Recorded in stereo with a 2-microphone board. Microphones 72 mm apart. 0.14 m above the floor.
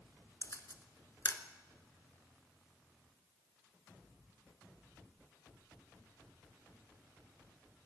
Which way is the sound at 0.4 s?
45° left (ahead or behind).